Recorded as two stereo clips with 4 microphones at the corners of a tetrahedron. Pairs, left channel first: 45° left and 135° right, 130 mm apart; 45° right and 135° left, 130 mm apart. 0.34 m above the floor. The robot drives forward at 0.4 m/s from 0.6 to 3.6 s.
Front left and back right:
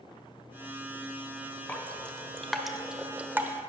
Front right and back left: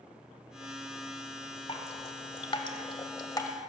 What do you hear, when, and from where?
1.7 s dripping: 30° right, 1.2 m; by 3.5 s 75° right, 0.9 m